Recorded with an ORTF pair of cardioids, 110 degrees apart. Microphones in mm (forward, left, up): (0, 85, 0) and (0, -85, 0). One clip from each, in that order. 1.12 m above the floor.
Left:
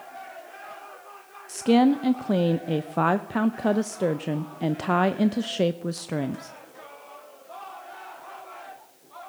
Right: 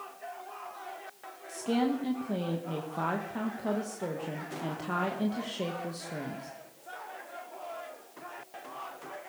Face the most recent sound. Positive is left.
turn(degrees=50)